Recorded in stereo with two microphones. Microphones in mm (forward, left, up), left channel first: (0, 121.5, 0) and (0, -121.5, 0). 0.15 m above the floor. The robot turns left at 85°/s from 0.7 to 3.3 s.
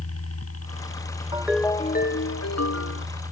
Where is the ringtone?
160° right; by 3.1 s 50° left.